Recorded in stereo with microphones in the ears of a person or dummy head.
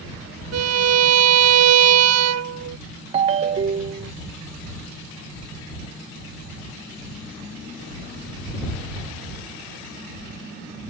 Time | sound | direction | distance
0.5 | a violin | 70° right (ahead or behind) | ?
3.1 | a ringtone | 35° right (ahead or behind) | ?